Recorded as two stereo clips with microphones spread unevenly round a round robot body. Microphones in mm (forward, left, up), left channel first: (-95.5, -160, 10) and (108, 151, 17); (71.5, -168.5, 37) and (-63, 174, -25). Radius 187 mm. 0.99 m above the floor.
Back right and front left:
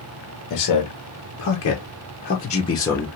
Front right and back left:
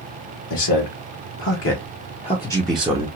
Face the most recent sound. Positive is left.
turn(degrees=155)